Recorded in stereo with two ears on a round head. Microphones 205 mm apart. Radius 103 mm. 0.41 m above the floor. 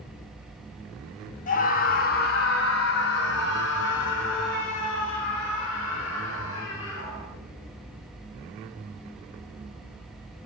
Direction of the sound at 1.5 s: 35° left (ahead or behind).